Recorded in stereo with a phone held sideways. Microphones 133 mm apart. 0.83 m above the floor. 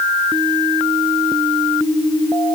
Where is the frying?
I don't hear frying.